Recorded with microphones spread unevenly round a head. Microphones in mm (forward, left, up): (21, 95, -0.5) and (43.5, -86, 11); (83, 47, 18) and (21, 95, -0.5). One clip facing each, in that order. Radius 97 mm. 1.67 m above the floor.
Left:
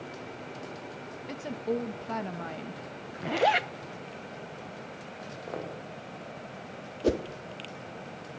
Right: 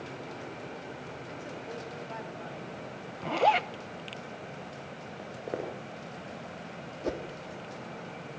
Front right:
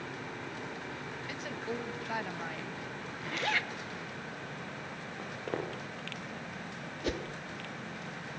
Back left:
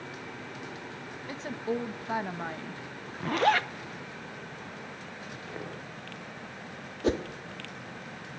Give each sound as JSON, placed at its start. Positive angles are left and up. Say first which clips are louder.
{"t": 1.3, "sound": "a woman speaking", "louder": "left 12 dB, back left 7 dB", "azimuth_deg": 80, "distance_m": 1.8}
{"t": 3.2, "sound": "a zipper", "louder": "even, back left 10 dB", "azimuth_deg": 170, "distance_m": 0.7}
{"t": 5.2, "sound": "footsteps", "louder": "right 2 dB, front right 5 dB", "azimuth_deg": -25, "distance_m": 9.5}
{"t": 7.0, "sound": "a whoosh", "louder": "left 7 dB, back left 8 dB", "azimuth_deg": 95, "distance_m": 1.3}